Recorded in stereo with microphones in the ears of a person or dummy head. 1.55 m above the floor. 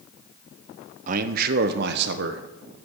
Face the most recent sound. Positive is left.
turn(degrees=-65)  # may be behind; listen again after turning